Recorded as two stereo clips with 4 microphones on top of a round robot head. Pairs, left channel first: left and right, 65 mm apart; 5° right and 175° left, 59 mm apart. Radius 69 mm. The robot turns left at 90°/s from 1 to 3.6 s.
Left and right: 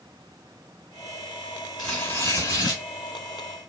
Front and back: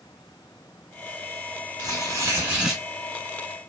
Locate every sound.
1.8 s tearing paper: 175° left, 2.5 m; by 2.8 s 85° left, 2.5 m